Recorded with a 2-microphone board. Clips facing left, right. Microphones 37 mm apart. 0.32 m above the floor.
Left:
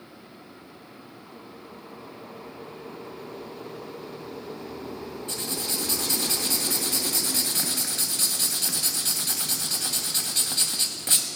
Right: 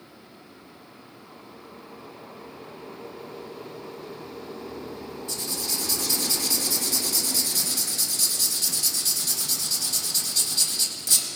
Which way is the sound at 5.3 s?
40° left (ahead or behind).